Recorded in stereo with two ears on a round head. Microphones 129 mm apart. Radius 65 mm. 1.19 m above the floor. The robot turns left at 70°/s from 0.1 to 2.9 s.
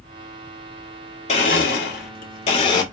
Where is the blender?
130° left, 2 m; by 2.8 s 20° left, 2 m.